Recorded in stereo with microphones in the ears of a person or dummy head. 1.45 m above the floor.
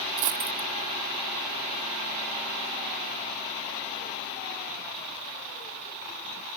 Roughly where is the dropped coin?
Right.